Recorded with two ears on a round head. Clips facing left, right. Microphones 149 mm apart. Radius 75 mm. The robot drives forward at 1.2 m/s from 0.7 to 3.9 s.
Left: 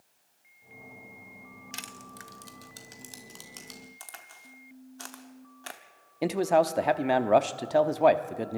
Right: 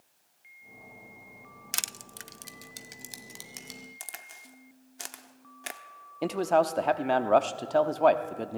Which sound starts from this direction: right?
Crushing, at 1.7 s.